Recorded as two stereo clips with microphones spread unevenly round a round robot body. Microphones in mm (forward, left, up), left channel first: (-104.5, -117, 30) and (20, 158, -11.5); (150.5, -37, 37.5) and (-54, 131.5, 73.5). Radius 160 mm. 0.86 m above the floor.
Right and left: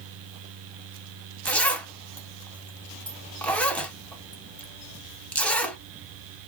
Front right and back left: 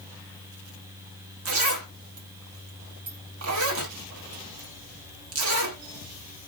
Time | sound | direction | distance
1.4 | a zipper | 165° left | 1.0 m